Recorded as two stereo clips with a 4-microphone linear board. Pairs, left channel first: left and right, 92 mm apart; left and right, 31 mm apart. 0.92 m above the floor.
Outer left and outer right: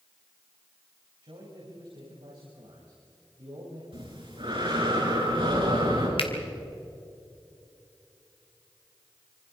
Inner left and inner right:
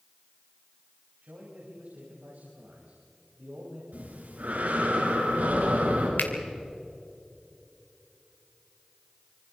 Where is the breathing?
65° right (ahead or behind), 7 m.